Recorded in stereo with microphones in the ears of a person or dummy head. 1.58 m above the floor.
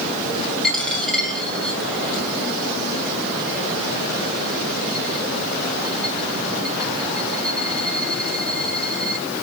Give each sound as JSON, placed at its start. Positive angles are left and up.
{"t": 0.6, "sound": "a dropped coin", "side_deg": 5, "distance_m": 2.5}